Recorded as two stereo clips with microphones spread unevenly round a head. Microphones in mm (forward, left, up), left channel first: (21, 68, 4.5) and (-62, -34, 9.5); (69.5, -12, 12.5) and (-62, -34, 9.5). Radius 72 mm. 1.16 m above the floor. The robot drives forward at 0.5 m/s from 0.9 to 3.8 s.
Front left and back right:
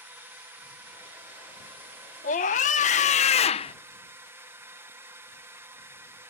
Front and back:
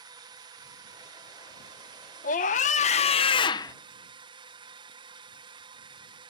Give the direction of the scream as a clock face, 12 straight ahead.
11 o'clock.